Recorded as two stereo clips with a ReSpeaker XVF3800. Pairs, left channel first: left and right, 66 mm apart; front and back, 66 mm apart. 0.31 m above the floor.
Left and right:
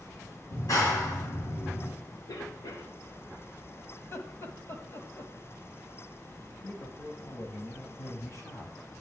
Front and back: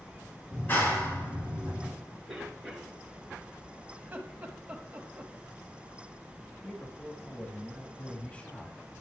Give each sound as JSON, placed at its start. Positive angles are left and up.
{"t": 0.5, "sound": "a clap", "azimuth_deg": 60, "distance_m": 3.5}
{"t": 2.3, "sound": "a cough", "azimuth_deg": 95, "distance_m": 3.5}
{"t": 4.0, "sound": "laughter", "azimuth_deg": 125, "distance_m": 1.7}
{"t": 6.6, "sound": "a man speaking", "azimuth_deg": 65, "distance_m": 1.7}